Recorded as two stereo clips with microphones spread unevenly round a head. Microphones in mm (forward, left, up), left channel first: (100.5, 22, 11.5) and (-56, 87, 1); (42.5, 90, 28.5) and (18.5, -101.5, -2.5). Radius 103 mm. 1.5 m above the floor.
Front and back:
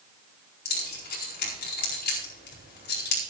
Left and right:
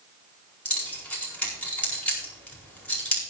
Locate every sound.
0.7 s keys jangling: straight ahead, 4.5 m